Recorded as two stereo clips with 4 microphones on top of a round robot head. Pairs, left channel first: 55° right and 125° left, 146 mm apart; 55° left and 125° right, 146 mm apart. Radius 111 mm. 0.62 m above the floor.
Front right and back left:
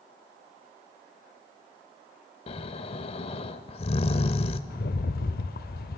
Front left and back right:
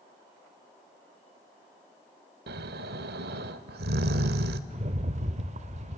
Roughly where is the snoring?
Right.